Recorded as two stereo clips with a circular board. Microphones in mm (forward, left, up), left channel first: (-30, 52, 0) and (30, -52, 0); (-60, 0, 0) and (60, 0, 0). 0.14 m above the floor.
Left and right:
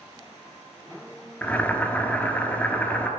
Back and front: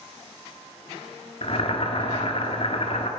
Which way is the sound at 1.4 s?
165° right.